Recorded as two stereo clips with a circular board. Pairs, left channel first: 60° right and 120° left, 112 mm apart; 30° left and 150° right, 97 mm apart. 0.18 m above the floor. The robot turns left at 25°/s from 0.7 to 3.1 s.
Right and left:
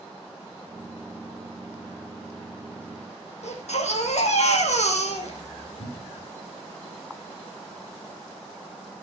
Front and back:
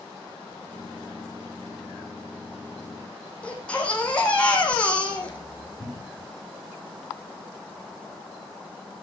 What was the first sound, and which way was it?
A baby crying, 50° right.